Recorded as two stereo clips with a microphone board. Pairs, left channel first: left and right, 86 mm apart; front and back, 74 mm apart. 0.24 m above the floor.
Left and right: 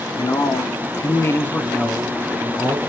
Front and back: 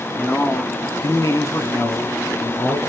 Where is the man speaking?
70° left, 2 m; by 2.8 s straight ahead, 3 m.